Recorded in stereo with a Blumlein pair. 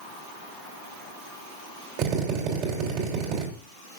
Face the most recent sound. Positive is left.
turn(degrees=-40)